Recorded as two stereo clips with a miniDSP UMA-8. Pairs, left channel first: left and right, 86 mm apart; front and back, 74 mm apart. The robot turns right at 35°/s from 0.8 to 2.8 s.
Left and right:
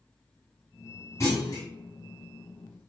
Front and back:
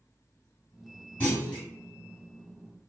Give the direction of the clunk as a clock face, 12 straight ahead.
10 o'clock.